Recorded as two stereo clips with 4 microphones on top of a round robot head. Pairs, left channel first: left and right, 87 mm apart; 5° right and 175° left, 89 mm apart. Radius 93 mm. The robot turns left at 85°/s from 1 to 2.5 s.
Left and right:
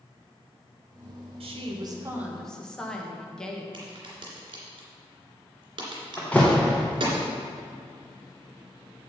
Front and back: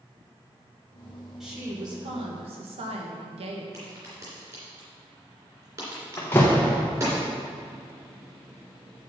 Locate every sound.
1.4 s a woman speaking: 95° right, 1.5 m; by 3.6 s 170° left, 1.5 m
3.7 s a crack: 120° right, 2.5 m
6.2 s a door slam: 30° left, 0.6 m